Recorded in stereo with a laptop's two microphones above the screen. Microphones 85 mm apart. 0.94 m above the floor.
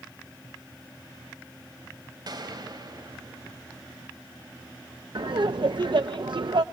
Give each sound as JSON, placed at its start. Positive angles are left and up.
{"t": 2.3, "sound": "a gunshot", "side_deg": -55, "distance_m": 3.0}
{"t": 5.2, "sound": "laughter", "side_deg": -65, "distance_m": 0.5}